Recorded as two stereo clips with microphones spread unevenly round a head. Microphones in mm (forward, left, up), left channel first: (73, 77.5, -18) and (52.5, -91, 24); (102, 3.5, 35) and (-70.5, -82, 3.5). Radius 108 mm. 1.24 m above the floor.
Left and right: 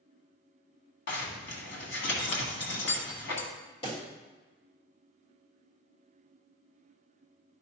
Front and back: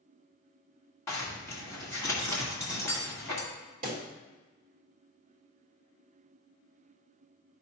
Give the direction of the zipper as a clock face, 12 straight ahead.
9 o'clock.